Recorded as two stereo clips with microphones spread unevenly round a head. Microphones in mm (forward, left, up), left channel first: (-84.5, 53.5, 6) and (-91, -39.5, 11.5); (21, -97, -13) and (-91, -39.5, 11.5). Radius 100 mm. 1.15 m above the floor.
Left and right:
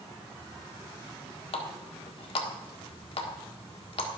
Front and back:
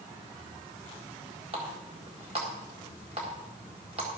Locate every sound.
1.5 s a running tap: 95° left, 1.6 m